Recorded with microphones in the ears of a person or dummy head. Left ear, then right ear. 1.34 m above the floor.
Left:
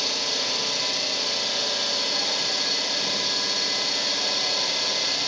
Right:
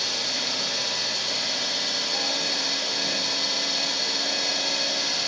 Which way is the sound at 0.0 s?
70° left (ahead or behind).